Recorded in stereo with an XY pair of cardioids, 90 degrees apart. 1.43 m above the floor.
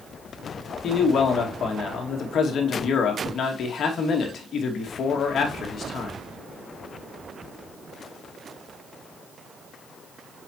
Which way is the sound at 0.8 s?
60° left.